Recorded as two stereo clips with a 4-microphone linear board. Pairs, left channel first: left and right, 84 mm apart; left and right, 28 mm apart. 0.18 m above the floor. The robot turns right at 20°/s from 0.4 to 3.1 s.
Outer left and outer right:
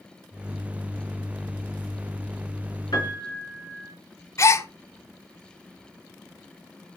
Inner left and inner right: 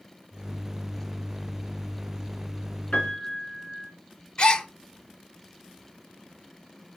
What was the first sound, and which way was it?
A piano, 55° left (ahead or behind).